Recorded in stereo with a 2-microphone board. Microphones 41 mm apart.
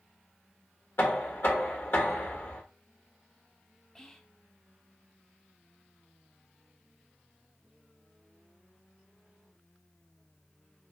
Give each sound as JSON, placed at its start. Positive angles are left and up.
{"t": 1.0, "sound": "knocking", "side_deg": 60, "distance_m": 1.3}
{"t": 4.0, "sound": "whispering", "side_deg": 15, "distance_m": 0.6}